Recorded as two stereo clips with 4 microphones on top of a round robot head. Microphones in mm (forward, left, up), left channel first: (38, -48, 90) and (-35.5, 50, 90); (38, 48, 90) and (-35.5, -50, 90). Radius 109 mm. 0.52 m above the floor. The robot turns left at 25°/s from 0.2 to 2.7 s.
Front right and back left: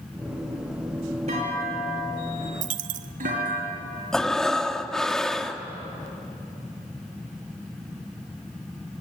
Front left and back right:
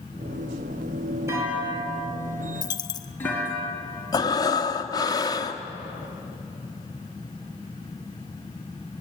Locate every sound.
1.3 s a clunk: 165° left, 5 m; by 3.6 s 130° left, 5 m
2.6 s a dropped coin: 115° left, 0.7 m; by 3.1 s 110° left, 0.7 m
4.1 s breathing: 30° left, 1.5 m